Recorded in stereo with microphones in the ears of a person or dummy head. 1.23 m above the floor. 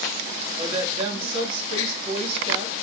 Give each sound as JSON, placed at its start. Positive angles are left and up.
{"t": 0.6, "sound": "a woman speaking", "side_deg": -30, "distance_m": 1.1}